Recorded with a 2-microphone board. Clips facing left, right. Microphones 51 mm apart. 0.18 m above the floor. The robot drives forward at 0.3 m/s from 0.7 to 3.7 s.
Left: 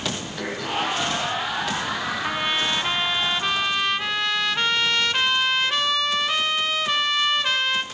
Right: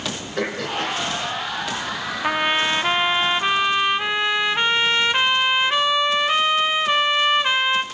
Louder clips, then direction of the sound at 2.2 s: Right 7 dB; 25° right (ahead or behind).